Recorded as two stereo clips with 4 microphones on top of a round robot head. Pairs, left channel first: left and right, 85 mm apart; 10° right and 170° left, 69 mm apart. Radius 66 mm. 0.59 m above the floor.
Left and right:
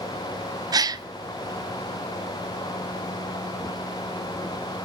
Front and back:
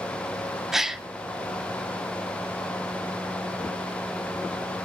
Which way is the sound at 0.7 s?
110° right.